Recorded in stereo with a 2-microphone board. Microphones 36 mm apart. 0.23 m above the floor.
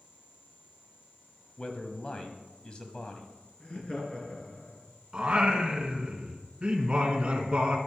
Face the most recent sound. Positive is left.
turn(degrees=-25)  # may be behind; listen again after turning